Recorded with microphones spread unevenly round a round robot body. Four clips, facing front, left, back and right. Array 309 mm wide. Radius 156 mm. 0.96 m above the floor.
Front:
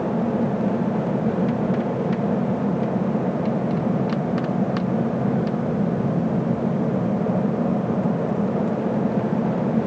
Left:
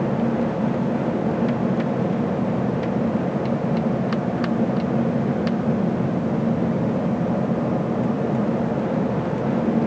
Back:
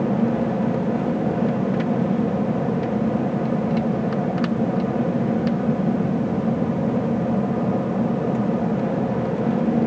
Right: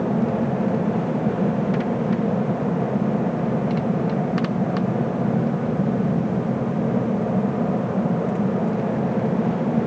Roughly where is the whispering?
I don't hear whispering.